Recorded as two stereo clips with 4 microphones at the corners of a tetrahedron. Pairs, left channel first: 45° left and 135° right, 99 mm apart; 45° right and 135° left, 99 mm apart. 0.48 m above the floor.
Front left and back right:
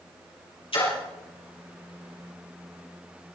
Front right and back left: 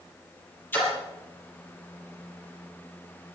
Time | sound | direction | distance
0.7 | a splash | 25° left | 5.5 m